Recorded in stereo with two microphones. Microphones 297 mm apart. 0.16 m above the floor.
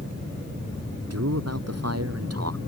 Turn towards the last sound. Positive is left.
turn(degrees=-55)  # may be behind; listen again after turning